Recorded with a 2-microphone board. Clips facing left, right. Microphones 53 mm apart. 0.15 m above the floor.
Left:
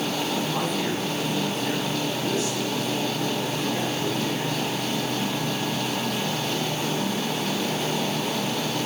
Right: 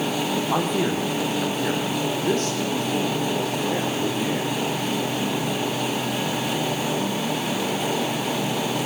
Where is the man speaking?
65° right (ahead or behind), 6 m; by 4.5 s 50° right (ahead or behind), 10.5 m.